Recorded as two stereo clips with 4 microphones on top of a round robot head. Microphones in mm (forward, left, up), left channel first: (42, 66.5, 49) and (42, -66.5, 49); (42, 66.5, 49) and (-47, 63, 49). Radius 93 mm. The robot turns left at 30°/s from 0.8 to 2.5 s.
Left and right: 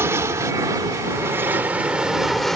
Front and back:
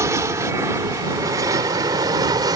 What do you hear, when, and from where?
0.0 s an aircraft: 150° right; by 2.6 s straight behind